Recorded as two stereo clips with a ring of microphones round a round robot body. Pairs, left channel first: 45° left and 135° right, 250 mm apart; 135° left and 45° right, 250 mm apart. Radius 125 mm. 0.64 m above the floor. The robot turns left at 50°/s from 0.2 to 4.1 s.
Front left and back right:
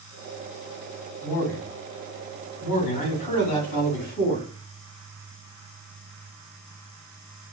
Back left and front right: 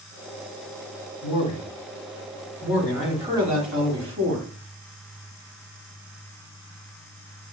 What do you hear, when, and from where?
1.2 s a man speaking: 135° left, 1.9 m; by 4.5 s 10° right, 1.9 m